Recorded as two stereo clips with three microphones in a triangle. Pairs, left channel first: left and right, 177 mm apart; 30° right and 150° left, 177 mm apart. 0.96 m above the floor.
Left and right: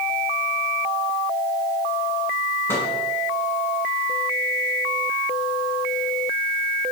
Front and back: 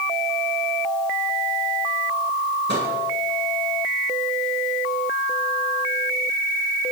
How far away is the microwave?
About 8 m.